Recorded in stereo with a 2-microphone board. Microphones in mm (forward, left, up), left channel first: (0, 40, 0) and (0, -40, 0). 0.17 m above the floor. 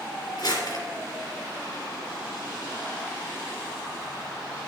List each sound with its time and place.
0.4 s crumpling: 50° left (ahead or behind), 2.5 m